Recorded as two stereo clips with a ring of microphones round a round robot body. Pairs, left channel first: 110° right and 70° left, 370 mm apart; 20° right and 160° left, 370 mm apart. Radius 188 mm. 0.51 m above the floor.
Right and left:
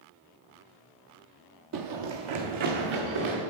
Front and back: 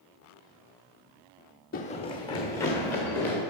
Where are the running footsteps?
40° left, 0.7 m; by 3.4 s 65° left, 3 m.